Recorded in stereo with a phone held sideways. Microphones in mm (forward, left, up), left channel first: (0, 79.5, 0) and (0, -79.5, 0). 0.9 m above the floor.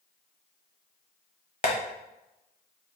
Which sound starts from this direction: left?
Tapping, at 1.6 s.